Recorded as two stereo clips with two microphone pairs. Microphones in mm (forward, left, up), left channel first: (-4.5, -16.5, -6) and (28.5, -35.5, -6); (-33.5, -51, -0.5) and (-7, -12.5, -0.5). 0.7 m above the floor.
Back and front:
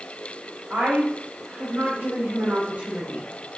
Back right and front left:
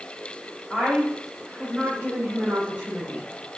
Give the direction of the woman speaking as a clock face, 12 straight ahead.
1 o'clock.